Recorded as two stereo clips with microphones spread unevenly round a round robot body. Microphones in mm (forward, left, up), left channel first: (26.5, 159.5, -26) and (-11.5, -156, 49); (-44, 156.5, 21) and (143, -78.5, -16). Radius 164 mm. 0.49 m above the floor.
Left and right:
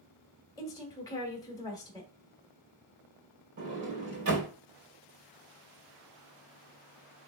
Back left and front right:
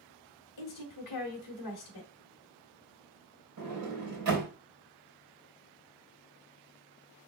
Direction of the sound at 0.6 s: 155° left.